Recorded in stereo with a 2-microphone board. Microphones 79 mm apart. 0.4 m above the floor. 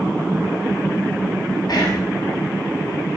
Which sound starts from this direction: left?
Whispering, at 1.7 s.